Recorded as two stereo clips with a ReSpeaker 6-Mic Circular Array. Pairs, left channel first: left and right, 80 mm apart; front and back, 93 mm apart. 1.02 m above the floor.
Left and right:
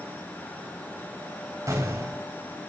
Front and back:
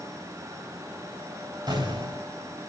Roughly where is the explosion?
Behind right.